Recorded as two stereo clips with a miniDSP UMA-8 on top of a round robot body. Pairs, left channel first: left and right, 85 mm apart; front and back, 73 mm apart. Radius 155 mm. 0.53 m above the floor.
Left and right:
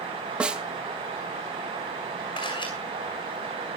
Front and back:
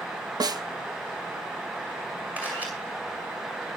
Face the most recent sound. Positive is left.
turn(degrees=105)